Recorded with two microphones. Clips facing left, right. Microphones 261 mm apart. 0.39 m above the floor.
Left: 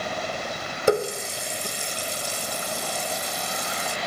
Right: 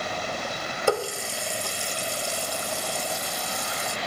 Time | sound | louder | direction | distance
0.9 | a running tap | left 4 dB | 20° left (ahead or behind) | 0.5 m